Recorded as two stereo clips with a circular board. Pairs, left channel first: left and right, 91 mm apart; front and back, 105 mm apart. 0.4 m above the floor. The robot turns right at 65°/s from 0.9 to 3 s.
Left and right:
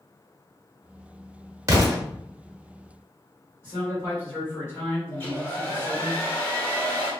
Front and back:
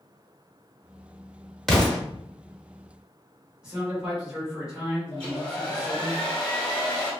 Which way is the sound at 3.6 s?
105° left.